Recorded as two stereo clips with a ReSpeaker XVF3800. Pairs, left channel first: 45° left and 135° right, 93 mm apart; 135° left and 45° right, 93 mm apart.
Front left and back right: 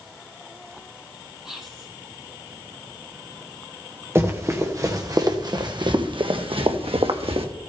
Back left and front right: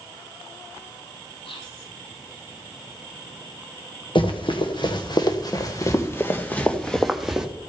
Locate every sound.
1.4 s whispering: 140° left, 6 m
4.2 s running footsteps: 160° left, 2.5 m; by 7.5 s 130° right, 1.7 m